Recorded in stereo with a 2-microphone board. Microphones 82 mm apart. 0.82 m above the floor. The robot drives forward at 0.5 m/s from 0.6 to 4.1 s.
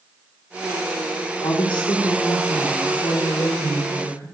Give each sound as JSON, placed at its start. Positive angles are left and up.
{"t": 1.4, "sound": "a woman speaking", "side_deg": 75, "distance_m": 1.5}